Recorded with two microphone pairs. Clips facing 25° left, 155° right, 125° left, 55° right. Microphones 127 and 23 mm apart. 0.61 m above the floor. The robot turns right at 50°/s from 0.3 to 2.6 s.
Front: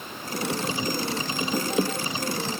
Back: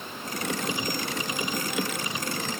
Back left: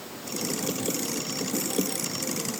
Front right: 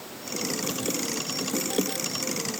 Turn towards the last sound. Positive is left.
No sound to turn to.